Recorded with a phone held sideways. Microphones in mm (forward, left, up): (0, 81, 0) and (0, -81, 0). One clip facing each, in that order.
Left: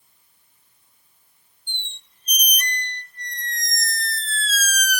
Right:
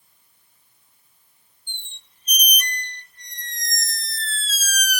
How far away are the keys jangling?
I don't hear keys jangling.